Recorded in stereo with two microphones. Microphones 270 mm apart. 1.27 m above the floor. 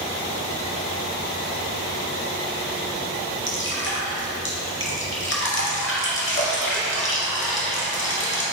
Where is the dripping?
45° left (ahead or behind), 0.9 m.